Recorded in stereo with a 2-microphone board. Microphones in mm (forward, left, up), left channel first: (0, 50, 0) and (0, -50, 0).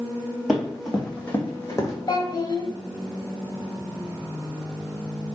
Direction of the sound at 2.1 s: 50° left (ahead or behind).